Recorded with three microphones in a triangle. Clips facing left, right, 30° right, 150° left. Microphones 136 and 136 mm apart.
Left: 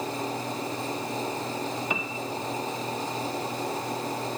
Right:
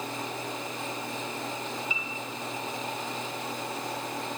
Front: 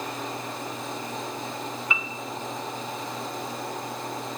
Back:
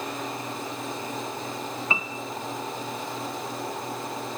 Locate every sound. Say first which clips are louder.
1.9 s a piano: left 7 dB, back 3 dB; 95° left, 1.1 m